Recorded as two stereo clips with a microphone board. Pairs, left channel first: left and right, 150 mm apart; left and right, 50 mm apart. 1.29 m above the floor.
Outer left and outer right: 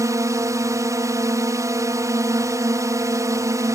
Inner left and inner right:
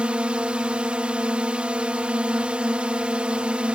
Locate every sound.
0.0 s a drone: 20° right (ahead or behind)